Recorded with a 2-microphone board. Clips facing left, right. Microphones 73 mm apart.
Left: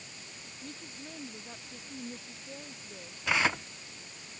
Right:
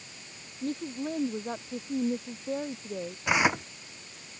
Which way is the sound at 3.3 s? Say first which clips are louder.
Right 3 dB; 20° right (ahead or behind).